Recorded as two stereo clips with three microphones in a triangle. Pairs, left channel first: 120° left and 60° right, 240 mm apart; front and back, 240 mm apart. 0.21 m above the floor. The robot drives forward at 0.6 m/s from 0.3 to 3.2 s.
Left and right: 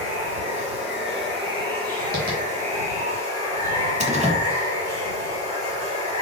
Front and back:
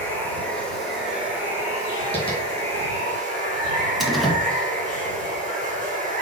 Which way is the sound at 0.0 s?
80° right.